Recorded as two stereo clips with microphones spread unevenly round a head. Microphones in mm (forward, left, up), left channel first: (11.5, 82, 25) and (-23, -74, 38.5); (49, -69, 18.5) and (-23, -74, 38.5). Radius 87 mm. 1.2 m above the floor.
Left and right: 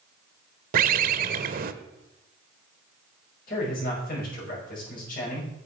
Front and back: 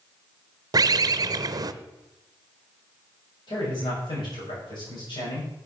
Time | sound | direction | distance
0.7 | a bird | 140° right | 0.6 m
3.5 | a man speaking | 40° left | 6.5 m